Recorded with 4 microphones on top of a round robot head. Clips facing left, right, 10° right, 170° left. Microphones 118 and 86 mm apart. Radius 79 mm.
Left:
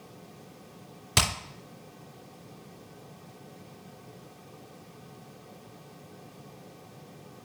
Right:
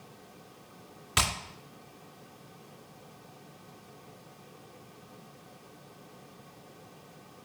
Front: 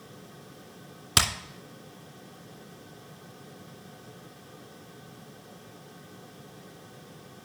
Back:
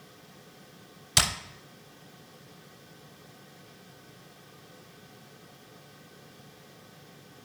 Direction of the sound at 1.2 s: 25° left.